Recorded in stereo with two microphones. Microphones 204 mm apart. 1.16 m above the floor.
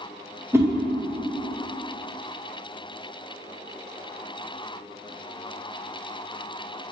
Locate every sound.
0.5 s a whoosh: 15° right (ahead or behind), 0.6 m